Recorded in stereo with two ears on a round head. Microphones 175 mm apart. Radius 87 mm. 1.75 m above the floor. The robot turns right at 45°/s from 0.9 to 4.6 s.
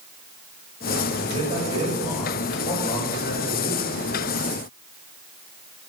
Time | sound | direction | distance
1.2 | a man speaking | 50° right | 8.5 m